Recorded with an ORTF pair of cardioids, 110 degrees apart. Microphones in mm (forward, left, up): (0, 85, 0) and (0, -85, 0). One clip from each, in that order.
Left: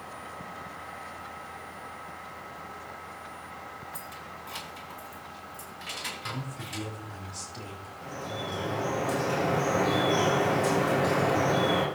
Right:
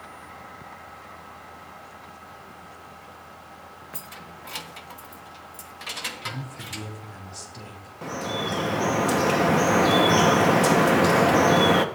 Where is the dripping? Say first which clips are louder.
Right 7 dB; 65° right, 1.2 m.